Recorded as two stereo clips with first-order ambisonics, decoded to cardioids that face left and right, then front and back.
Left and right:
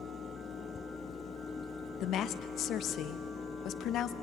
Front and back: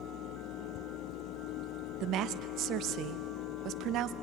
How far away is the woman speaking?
About 0.9 m.